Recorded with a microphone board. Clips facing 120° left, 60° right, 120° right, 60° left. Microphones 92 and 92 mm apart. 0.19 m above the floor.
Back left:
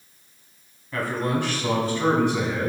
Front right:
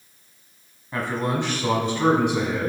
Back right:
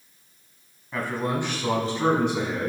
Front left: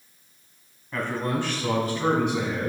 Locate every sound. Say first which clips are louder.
0.9 s a man speaking: even, even; 45° right, 1.0 m; by 2.7 s 130° right, 1.3 m